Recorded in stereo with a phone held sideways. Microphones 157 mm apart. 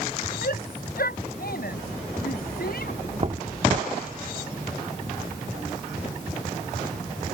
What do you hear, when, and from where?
0.4 s a shout: 75° left (ahead or behind)
3.2 s knocking: 45° right (ahead or behind)